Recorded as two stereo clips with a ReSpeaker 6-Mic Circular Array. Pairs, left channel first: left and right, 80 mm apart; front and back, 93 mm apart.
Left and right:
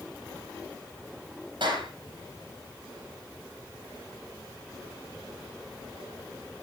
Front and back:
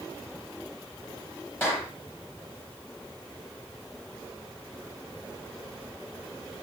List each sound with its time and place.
1.6 s a clap: 65° right, 7.5 m